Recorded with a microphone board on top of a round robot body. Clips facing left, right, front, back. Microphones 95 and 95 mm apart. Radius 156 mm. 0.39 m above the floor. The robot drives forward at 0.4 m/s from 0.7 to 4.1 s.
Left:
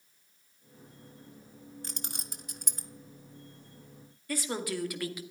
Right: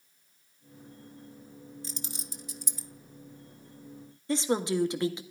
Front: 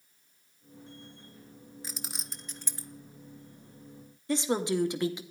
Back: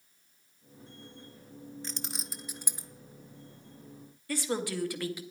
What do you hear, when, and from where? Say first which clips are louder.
1.8 s keys jangling: right 1 dB, back 3 dB; 80° left, 1.0 m; by 2.9 s 110° left, 1.0 m
4.3 s a woman speaking: right 6 dB, front 5 dB; 45° right, 1.5 m